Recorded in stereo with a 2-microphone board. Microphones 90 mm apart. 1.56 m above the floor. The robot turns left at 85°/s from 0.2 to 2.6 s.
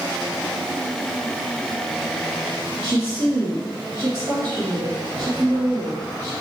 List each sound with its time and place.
2.8 s a woman speaking: 40° right (ahead or behind), 1.5 m